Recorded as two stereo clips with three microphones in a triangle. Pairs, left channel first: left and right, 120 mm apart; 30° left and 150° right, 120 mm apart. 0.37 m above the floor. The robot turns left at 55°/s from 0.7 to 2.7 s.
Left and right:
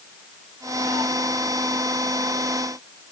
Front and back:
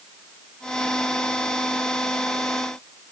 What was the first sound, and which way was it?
Only background noise.